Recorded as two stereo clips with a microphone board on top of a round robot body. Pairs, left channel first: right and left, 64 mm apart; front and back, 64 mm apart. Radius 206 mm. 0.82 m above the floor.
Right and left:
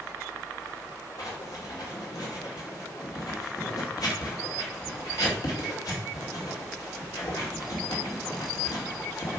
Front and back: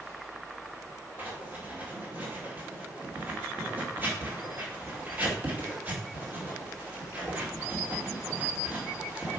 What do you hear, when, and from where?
1.2 s writing: 120° right, 2.5 m